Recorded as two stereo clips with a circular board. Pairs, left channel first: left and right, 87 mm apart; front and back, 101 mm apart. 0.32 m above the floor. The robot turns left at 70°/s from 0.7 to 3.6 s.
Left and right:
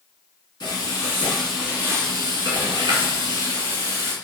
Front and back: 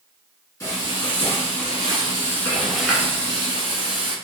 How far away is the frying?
About 1.5 m.